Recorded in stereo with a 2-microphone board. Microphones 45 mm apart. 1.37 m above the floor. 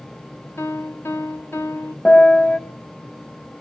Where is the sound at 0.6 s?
65° left (ahead or behind), 1.5 m.